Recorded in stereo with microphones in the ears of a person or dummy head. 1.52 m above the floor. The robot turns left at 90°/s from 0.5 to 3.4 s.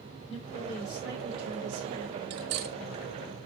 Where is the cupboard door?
I don't hear a cupboard door.